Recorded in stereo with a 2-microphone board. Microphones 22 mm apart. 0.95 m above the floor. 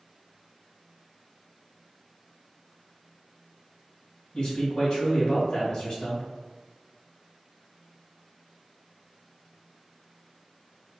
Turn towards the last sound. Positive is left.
turn(degrees=45)  # may be behind; listen again after turning